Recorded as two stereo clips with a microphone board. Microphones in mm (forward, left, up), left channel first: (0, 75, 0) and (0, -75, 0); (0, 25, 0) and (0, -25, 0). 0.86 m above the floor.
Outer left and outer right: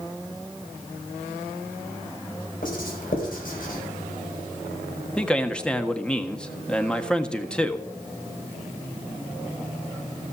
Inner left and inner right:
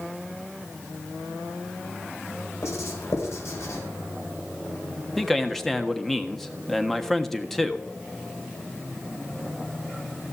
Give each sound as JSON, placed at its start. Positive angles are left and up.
{"t": 2.6, "sound": "writing", "side_deg": 70, "distance_m": 4.5}
{"t": 5.2, "sound": "a man speaking", "side_deg": 5, "distance_m": 1.4}